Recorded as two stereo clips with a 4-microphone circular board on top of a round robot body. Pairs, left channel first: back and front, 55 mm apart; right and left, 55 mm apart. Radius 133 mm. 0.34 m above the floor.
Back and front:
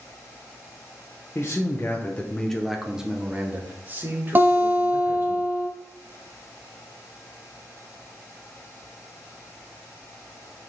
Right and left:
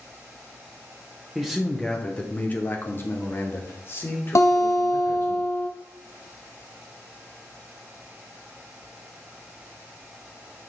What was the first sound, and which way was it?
A man speaking, straight behind.